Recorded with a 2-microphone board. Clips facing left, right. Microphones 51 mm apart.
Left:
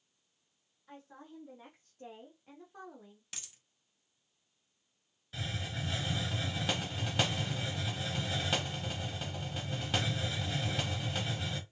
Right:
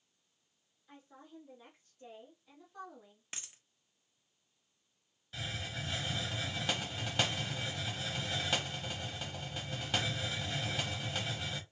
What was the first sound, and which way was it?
A woman speaking, 70° left (ahead or behind).